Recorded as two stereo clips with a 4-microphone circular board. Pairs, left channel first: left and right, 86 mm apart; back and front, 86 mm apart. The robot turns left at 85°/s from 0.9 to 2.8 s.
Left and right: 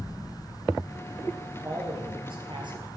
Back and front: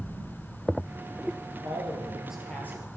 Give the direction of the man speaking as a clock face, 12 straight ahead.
1 o'clock.